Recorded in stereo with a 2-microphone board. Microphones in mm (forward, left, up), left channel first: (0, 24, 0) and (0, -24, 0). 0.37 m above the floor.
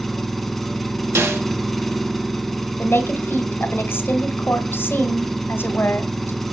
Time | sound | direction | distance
0.0 | an engine running | 5° left (ahead or behind) | 1.2 m
1.1 | a snare drum | 70° right (ahead or behind) | 5 m
2.8 | a woman speaking | 50° left (ahead or behind) | 1.7 m